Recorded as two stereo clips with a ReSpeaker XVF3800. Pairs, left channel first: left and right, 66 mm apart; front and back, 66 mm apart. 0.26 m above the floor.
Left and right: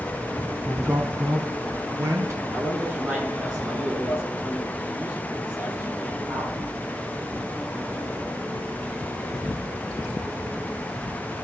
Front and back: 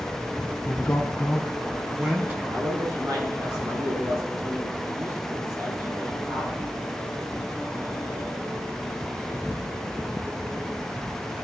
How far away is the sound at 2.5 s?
About 7 m.